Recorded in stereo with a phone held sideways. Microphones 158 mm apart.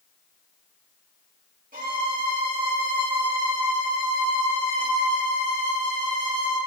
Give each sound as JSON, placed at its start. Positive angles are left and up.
{"t": 1.7, "sound": "a violin", "side_deg": -60, "distance_m": 3.0}